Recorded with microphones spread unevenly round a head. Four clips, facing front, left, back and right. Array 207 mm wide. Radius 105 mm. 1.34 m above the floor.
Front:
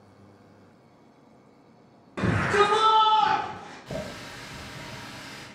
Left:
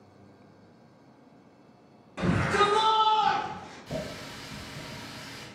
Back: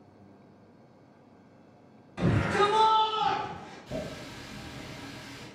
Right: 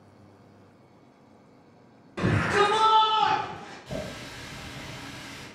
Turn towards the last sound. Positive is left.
turn(degrees=5)